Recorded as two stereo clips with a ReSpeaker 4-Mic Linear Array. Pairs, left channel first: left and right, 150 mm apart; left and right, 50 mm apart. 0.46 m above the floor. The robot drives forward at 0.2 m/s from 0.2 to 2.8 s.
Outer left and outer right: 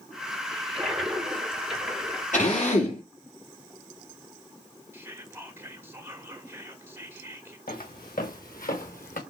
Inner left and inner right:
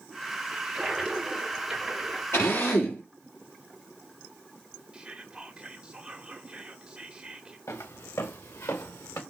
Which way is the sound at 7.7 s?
75° left (ahead or behind).